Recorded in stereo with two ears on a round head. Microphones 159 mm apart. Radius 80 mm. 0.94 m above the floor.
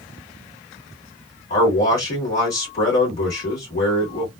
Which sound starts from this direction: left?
A man speaking, at 1.5 s.